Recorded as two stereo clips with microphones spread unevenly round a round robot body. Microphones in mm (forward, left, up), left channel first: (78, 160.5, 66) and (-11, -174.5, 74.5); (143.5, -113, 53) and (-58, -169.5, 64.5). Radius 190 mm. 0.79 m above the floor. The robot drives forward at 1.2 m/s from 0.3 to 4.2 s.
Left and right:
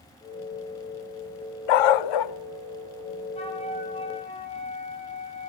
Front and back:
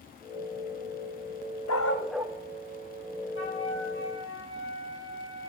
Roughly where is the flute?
Ahead.